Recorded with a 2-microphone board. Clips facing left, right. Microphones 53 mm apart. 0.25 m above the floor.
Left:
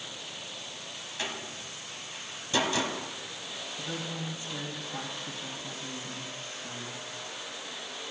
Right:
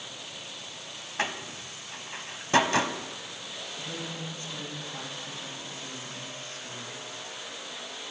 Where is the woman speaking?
20° left (ahead or behind), 1.6 m.